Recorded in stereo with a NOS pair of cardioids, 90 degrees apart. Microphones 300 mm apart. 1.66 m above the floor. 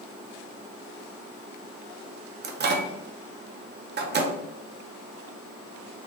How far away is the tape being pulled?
No tape being pulled in this recording.